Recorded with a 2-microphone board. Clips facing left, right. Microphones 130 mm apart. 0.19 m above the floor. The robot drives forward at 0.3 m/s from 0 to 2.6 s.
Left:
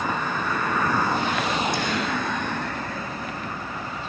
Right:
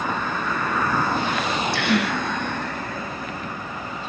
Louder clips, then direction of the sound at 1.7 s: Right 4 dB; 70° right (ahead or behind).